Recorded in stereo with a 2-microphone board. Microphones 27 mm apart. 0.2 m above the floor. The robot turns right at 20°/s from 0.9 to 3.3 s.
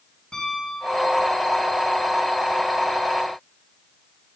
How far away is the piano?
About 4.5 m.